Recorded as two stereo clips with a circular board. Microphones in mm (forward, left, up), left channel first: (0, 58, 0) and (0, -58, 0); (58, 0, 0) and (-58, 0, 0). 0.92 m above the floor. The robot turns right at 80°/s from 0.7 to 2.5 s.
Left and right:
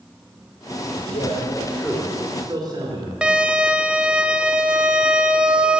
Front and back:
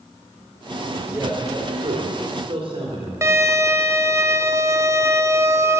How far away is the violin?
About 0.6 m.